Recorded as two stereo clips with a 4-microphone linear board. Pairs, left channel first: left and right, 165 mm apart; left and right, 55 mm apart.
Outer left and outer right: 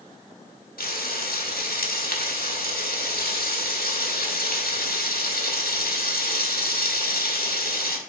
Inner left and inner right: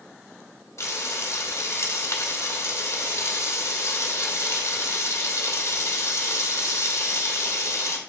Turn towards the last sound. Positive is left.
turn(degrees=70)  # may be behind; listen again after turning